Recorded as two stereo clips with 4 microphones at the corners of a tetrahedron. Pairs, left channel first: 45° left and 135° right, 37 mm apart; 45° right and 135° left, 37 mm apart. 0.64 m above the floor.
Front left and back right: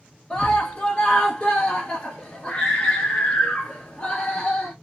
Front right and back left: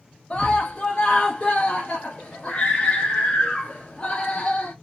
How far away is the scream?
About 0.9 m.